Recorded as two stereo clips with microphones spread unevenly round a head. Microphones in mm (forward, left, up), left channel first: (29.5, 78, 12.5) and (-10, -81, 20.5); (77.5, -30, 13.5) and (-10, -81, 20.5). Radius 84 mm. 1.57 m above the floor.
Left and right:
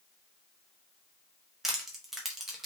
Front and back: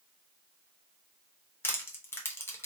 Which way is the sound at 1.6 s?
25° right.